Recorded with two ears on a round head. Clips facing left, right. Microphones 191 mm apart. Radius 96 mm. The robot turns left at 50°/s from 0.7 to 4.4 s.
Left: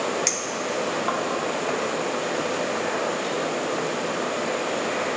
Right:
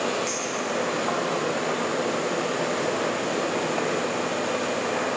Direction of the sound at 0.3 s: 60° left (ahead or behind).